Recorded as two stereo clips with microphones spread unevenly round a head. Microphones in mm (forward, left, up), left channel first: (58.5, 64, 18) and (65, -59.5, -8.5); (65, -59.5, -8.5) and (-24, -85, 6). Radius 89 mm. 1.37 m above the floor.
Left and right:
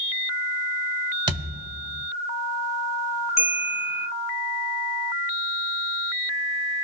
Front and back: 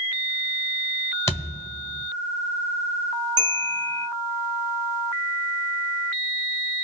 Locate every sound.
1.3 s a thud: 40° right, 1.3 m
3.4 s a bell: 140° left, 0.8 m